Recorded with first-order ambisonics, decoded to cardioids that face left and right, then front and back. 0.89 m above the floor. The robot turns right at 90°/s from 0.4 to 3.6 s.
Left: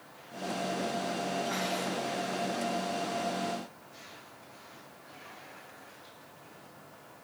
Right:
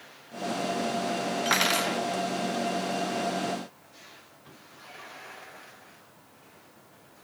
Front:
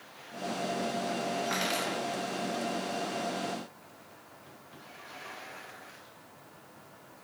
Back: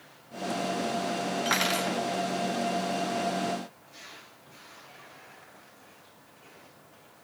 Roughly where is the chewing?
No chewing in this recording.